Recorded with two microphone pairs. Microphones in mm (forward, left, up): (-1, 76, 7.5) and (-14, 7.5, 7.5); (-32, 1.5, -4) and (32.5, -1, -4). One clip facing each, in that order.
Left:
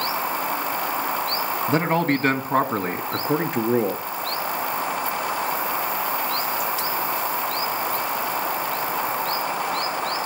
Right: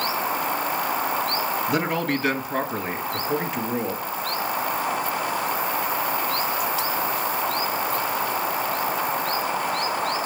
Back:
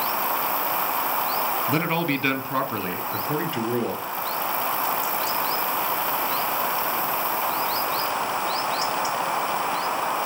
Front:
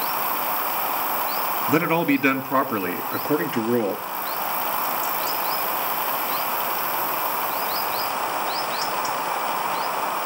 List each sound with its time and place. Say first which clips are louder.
1.7 s a man speaking: left 6 dB, front 8 dB; 65° left, 1.8 m; by 4.0 s 60° left, 3.5 m